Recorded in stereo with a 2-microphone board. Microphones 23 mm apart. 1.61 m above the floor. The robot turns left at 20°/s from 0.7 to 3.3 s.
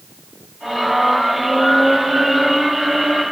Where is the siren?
I don't hear a siren.